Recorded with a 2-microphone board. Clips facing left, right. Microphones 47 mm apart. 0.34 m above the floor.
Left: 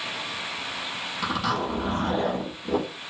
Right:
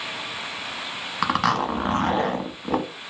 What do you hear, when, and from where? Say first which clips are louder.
1.2 s a zipper: right 5 dB; 70° right (ahead or behind), 0.7 m